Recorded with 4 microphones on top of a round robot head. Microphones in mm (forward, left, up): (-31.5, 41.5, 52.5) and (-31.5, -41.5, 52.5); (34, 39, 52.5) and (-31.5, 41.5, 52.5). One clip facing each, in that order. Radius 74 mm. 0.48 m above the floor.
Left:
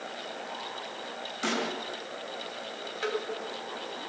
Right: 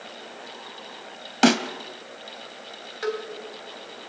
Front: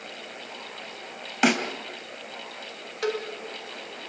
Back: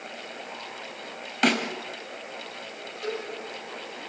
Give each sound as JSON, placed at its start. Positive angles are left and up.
{"t": 1.4, "sound": "a snare drum", "azimuth_deg": -85, "distance_m": 2.5}
{"t": 3.0, "sound": "a cowbell", "azimuth_deg": -15, "distance_m": 3.5}